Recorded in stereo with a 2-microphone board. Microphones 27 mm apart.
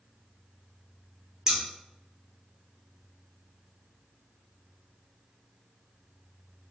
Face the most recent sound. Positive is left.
turn(degrees=-25)  # may be behind; listen again after turning